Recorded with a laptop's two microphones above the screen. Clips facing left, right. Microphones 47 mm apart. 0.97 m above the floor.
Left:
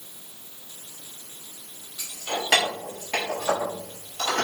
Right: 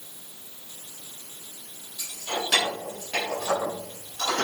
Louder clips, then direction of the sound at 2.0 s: Left 1 dB; 75° left (ahead or behind).